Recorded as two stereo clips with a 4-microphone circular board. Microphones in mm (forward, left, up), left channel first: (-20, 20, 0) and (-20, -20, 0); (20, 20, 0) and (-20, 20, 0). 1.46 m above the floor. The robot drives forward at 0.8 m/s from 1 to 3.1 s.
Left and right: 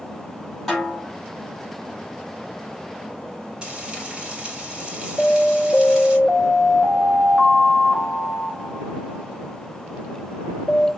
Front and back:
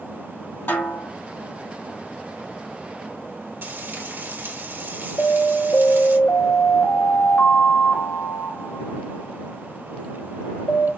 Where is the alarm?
35° left, 3 m.